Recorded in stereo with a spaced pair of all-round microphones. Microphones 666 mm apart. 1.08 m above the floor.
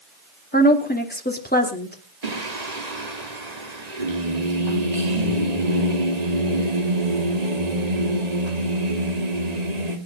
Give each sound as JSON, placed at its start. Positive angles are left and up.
{"t": 0.5, "sound": "a woman speaking", "side_deg": 15, "distance_m": 3.0}
{"t": 2.2, "sound": "singing", "side_deg": -75, "distance_m": 2.5}